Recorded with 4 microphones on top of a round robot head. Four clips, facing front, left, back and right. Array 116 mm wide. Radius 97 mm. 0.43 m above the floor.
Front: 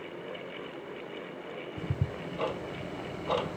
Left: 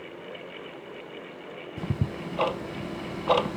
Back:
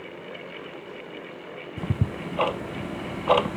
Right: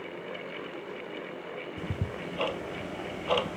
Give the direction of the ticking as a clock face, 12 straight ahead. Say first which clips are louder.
Left 8 dB, back 8 dB; 7 o'clock.